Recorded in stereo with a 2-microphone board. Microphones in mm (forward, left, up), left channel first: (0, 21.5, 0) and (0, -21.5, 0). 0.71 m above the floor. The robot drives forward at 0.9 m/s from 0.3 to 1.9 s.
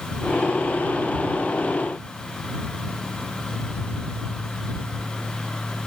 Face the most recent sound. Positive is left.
No sound to turn to.